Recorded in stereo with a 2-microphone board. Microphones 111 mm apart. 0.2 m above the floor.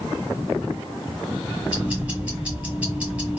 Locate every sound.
1.7 s ticking: 15° right (ahead or behind), 1.8 m